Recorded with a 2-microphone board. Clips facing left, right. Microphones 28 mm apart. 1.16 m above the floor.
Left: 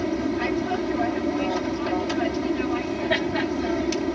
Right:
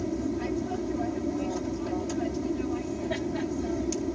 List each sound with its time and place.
0.0 s an aircraft: 55° left (ahead or behind)